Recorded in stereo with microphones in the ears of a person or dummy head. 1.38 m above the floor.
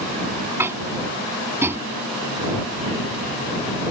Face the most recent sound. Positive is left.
turn(degrees=-15)  # may be behind; listen again after turning